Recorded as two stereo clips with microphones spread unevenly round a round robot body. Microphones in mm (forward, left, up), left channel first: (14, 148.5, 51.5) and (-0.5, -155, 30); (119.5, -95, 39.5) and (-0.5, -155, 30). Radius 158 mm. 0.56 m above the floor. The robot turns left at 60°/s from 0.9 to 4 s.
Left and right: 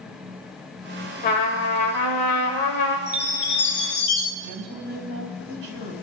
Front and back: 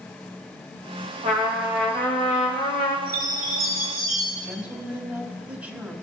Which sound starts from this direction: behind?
A chime, at 3.1 s.